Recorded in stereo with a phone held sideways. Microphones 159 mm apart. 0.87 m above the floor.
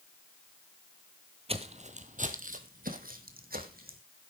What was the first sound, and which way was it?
Footsteps, 40° right (ahead or behind).